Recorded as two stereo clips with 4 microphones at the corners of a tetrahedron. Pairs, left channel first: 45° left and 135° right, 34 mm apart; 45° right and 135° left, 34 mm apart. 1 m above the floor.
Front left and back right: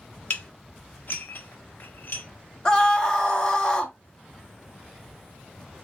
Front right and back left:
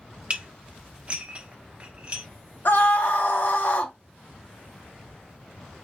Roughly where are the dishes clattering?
Left.